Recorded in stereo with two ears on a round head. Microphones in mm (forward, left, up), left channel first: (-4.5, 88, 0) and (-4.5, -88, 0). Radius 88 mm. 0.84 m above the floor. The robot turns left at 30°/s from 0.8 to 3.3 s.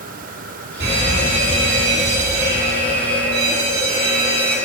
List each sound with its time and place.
0.8 s a fire alarm: 65° right, 3.5 m; by 4.6 s 140° right, 3.5 m